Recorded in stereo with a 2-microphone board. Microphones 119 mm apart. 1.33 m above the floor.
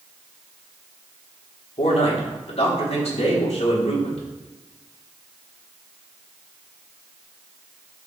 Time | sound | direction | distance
1.8 | a man speaking | 60° left (ahead or behind) | 3.5 m